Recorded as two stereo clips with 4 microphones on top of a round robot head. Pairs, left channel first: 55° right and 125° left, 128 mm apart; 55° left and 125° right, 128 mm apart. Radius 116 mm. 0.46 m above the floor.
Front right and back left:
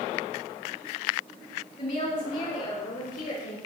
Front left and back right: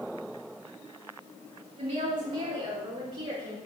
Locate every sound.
1.8 s a woman speaking: 75° right, 5 m; by 3.6 s 65° right, 6.5 m